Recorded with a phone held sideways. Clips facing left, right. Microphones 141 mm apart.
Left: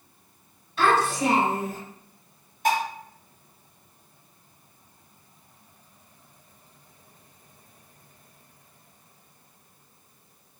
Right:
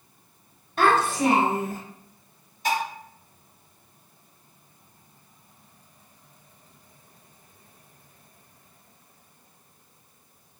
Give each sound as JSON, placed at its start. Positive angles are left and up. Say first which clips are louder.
{"t": 0.8, "sound": "a child speaking", "louder": "right 1 dB", "side_deg": -45, "distance_m": 0.8}
{"t": 2.6, "sound": "dishes clattering", "louder": "left 2 dB", "side_deg": 55, "distance_m": 1.0}